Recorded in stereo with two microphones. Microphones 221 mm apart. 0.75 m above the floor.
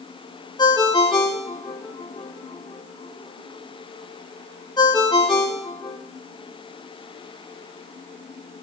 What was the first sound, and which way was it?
A ringtone, 20° left (ahead or behind).